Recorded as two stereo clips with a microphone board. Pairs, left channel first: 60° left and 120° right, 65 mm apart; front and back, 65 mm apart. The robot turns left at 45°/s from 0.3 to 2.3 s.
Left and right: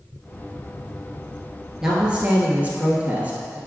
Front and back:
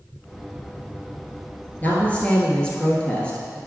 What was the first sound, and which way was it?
A woman speaking, 45° right.